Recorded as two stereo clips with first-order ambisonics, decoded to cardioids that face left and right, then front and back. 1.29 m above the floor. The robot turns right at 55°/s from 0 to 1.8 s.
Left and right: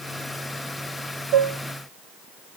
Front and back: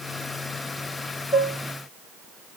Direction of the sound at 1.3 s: 70° right.